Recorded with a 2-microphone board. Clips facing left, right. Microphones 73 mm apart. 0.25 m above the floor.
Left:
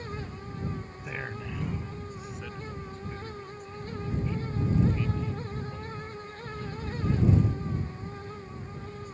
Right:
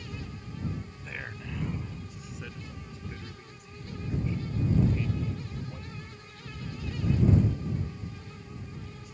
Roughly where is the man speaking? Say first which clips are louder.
Left 6 dB; centre.